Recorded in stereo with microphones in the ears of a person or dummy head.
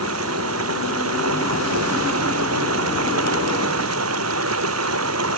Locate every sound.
0.0 s running water: 90° right